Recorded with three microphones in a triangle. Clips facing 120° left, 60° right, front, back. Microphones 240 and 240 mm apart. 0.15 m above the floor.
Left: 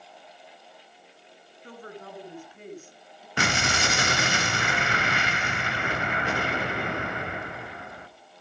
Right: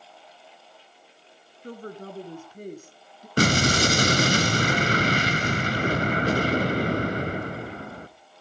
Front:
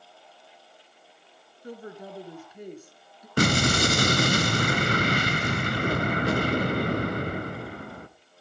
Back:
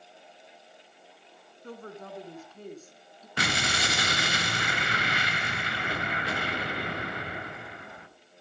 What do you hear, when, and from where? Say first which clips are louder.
1.6 s a woman speaking: right 5 dB, front 2 dB; 70° right, 2 m
3.4 s an explosion: right 8 dB, front 10 dB; 25° right, 1.3 m